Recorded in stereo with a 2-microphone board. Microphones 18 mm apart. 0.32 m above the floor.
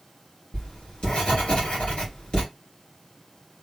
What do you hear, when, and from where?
0.5 s writing: 65° left (ahead or behind), 3 m